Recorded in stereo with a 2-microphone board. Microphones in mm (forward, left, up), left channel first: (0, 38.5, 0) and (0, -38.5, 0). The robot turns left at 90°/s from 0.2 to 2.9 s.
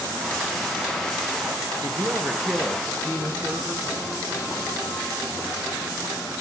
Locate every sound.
1.8 s a woman speaking: 110° right, 2 m; by 3.9 s 150° left, 2 m